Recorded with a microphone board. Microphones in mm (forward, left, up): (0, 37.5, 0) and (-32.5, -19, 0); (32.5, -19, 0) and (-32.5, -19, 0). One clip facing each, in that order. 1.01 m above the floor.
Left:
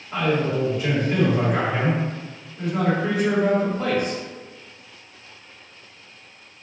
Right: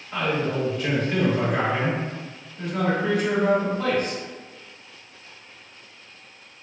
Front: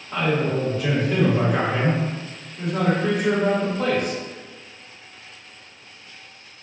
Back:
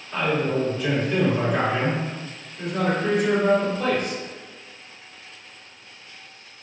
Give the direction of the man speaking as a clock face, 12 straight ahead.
12 o'clock.